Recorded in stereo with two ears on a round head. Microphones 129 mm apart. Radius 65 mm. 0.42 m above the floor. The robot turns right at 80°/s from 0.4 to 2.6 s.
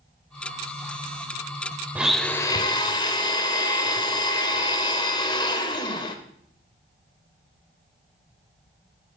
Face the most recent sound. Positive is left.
turn(degrees=40)